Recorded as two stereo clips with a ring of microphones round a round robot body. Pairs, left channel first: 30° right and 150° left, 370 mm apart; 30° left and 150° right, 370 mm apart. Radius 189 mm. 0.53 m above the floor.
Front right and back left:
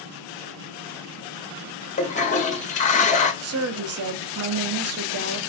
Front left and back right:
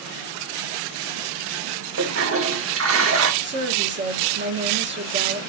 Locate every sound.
2.0 s a toilet flushing: 100° right, 0.9 m
3.4 s a woman speaking: 165° left, 0.9 m